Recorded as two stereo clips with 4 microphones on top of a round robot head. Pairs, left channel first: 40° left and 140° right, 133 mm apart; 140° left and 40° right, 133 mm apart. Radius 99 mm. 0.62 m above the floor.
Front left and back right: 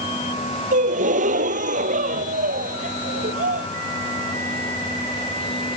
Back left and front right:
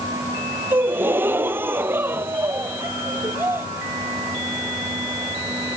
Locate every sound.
0.7 s a gasp: 115° right